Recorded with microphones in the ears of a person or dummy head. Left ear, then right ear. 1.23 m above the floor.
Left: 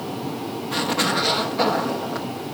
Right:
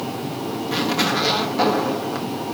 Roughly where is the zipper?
Centre.